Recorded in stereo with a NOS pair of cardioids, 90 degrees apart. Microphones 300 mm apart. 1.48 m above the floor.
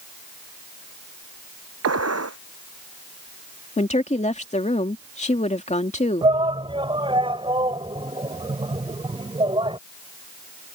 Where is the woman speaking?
25° left.